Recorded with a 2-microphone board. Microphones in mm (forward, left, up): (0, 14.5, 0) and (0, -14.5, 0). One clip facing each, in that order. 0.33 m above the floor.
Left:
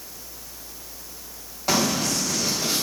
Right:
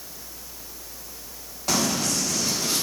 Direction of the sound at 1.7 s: 10° left (ahead or behind).